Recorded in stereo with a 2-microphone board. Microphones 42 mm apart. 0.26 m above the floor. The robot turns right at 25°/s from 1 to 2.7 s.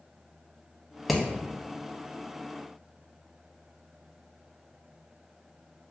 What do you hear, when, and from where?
1.1 s hammering: centre (ahead or behind), 0.5 m